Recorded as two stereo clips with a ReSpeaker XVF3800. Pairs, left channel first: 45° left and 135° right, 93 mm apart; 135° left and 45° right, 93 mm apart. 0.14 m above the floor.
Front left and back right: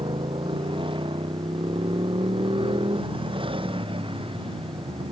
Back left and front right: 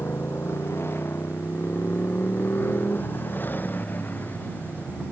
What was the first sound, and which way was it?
A motorcycle, 160° right.